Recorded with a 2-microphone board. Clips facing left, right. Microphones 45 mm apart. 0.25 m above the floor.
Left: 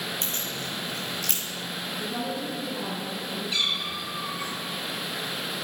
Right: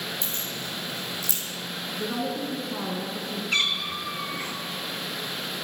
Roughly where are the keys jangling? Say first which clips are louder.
Left 1 dB; left.